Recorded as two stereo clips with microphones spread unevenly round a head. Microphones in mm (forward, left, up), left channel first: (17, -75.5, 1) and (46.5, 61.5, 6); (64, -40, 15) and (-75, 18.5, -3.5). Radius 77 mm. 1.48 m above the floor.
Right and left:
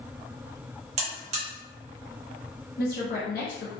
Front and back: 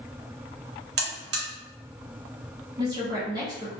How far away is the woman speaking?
About 0.7 m.